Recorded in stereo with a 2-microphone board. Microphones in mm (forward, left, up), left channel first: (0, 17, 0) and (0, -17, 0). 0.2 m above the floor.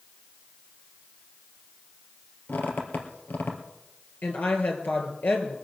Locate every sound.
2.5 s a squeak: 75° left (ahead or behind), 2.5 m
4.2 s a woman speaking: 60° left (ahead or behind), 3 m